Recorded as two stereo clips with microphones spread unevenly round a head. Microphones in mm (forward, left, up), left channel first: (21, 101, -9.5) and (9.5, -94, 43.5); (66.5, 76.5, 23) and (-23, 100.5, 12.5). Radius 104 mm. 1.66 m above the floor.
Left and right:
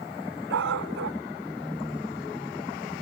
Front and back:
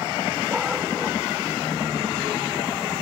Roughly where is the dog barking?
Right.